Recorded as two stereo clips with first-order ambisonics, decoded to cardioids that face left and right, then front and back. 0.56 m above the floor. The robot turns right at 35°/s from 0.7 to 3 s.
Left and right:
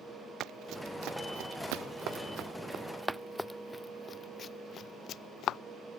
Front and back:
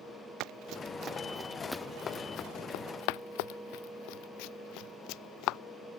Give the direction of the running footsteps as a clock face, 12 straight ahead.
5 o'clock.